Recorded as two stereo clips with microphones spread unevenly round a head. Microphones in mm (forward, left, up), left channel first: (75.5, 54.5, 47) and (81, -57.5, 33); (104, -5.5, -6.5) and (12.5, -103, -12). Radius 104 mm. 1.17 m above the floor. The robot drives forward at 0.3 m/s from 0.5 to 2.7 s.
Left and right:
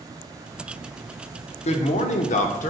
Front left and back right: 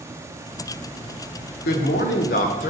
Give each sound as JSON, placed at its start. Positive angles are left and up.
{"t": 1.6, "sound": "a man speaking", "azimuth_deg": 65, "distance_m": 0.5}